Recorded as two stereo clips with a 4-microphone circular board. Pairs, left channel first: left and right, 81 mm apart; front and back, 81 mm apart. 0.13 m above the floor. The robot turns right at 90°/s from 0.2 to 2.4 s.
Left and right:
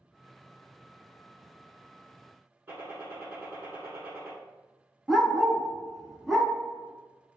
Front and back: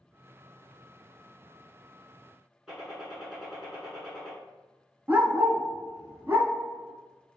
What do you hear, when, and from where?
2.7 s a gunshot: 105° right, 1.2 m
5.1 s a dog barking: straight behind, 0.6 m